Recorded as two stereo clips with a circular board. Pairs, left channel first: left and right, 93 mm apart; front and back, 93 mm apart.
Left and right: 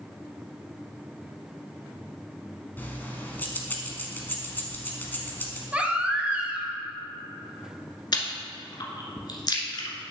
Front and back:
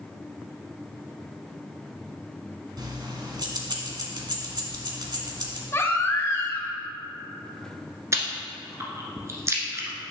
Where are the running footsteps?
I don't hear running footsteps.